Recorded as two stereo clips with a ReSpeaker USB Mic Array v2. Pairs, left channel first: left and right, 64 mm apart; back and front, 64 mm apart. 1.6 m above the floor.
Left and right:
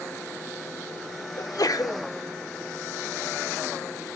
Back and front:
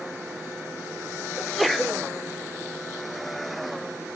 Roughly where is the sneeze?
Left.